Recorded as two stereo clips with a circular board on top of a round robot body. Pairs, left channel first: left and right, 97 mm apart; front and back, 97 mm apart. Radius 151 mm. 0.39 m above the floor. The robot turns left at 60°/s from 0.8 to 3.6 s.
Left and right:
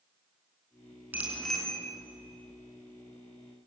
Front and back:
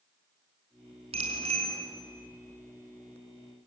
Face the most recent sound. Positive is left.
turn(degrees=50)